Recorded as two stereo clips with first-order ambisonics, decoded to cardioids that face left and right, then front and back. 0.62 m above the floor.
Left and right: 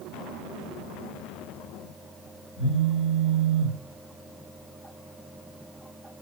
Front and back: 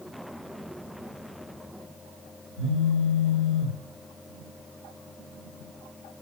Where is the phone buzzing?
45° left, 1.2 m.